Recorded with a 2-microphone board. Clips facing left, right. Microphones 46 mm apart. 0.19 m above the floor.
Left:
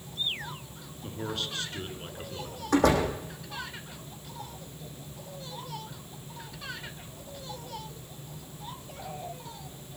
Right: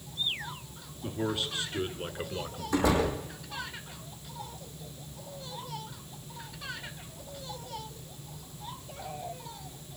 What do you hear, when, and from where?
1.0 s a man speaking: 5° right (ahead or behind), 3 m; by 3.2 s 40° right (ahead or behind), 2.5 m
2.7 s a door slam: 60° left (ahead or behind), 7.5 m